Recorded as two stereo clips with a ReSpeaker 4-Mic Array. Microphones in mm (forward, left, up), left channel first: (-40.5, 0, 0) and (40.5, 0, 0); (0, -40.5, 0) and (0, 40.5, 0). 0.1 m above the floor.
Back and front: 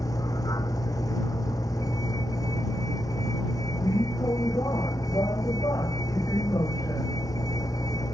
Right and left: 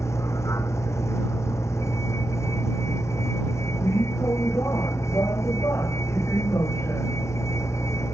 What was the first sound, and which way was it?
A vehicle, 145° right.